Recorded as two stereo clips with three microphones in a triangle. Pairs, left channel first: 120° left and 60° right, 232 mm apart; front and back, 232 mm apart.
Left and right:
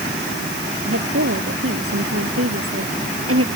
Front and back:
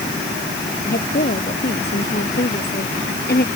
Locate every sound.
0.8 s a woman speaking: 45° right